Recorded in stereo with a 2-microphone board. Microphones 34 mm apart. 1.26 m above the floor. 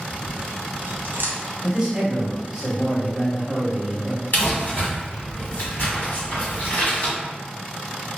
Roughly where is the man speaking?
Centre.